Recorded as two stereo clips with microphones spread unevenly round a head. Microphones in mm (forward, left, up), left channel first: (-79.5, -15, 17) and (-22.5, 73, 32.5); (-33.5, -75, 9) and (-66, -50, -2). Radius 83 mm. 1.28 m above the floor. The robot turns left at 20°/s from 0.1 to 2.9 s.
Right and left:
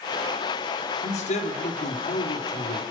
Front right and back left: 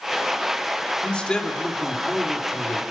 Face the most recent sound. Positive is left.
turn(degrees=-135)